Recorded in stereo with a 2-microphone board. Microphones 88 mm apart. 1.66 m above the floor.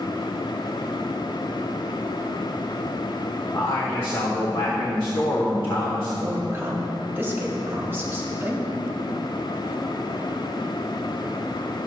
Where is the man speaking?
60° left (ahead or behind), 1.1 m.